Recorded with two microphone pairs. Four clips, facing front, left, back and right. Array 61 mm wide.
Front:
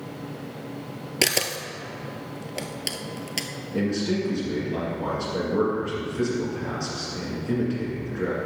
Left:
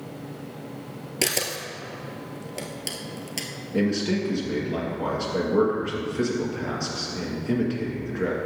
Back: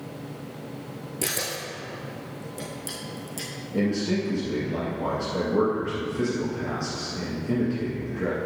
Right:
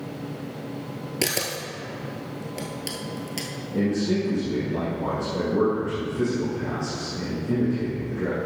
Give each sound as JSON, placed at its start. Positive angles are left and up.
{"t": 1.2, "sound": "a camera shutter", "azimuth_deg": 5, "distance_m": 1.0}
{"t": 3.7, "sound": "a man speaking", "azimuth_deg": 75, "distance_m": 1.9}